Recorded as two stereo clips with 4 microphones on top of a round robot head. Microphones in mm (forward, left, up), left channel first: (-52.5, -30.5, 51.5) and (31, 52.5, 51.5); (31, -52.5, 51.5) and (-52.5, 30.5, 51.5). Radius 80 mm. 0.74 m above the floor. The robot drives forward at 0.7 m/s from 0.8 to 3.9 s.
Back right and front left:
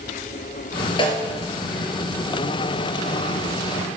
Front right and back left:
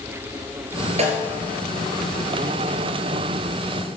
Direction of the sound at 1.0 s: 170° left.